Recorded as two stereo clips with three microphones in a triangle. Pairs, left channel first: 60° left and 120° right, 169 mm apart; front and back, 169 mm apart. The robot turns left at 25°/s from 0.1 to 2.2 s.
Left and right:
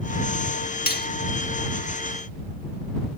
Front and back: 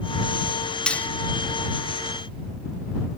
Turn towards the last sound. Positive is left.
turn(degrees=50)